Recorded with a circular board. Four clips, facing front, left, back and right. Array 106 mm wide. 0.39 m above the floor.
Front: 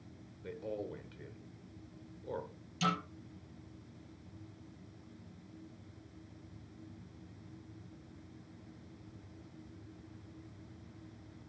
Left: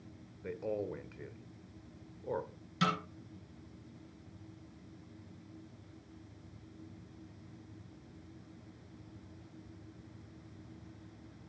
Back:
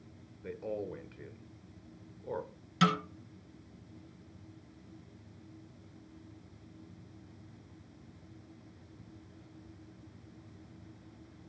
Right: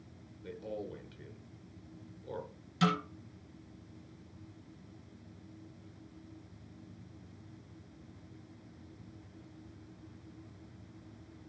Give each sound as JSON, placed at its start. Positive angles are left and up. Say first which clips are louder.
{"t": 0.4, "sound": "a man speaking", "louder": "left 4 dB, back 3 dB", "azimuth_deg": 115, "distance_m": 0.9}
{"t": 2.8, "sound": "a snare drum", "louder": "right 3 dB, back 6 dB", "azimuth_deg": 175, "distance_m": 2.5}